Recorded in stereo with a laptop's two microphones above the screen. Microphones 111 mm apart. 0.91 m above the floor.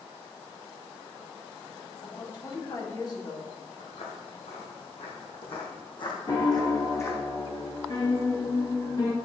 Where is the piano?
35° left (ahead or behind), 1.9 m.